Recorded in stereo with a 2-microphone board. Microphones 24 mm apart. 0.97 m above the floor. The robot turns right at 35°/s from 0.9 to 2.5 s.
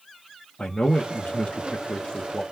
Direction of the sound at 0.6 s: 80° left.